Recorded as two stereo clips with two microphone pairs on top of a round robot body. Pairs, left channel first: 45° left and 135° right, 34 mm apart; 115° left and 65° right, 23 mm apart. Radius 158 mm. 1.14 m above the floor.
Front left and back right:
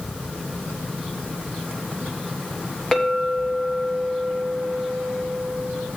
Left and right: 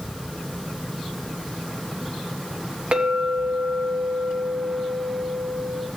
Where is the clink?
30° right, 0.9 m.